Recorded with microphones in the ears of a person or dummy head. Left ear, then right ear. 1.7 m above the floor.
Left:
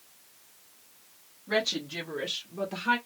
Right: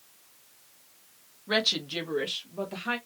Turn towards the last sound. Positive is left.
turn(degrees=5)  # may be behind; listen again after turning